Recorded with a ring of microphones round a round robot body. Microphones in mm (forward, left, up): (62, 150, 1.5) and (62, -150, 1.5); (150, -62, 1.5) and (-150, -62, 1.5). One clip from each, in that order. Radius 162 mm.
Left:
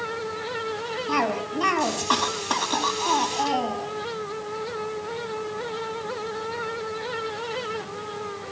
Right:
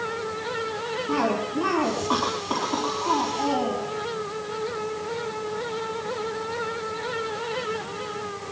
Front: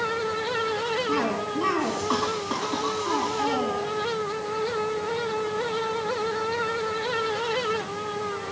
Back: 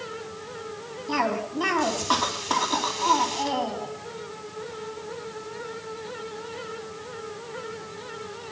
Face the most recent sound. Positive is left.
turn(degrees=115)